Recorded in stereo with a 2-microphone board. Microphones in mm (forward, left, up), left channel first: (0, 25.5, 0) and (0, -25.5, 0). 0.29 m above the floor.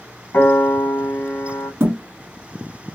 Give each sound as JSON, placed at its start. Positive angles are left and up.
{"t": 0.3, "sound": "a piano", "side_deg": 50, "distance_m": 2.0}
{"t": 1.8, "sound": "a thud", "side_deg": -50, "distance_m": 1.4}